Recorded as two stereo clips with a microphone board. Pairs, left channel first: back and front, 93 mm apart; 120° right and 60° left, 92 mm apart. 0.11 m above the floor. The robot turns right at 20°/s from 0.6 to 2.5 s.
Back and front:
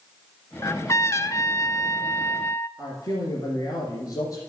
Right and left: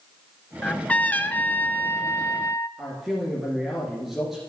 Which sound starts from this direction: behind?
A trumpet, at 0.6 s.